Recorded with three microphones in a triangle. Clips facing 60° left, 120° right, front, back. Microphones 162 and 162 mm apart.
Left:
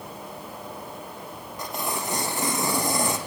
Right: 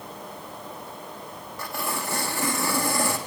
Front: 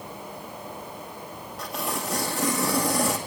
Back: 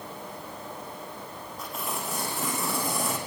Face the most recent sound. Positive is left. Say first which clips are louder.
# left 1 dB, front 4 dB
turn(degrees=-10)